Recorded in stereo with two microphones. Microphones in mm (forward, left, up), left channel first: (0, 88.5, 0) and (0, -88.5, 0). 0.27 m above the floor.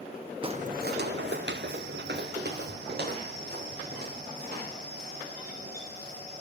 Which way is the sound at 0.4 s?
30° right (ahead or behind).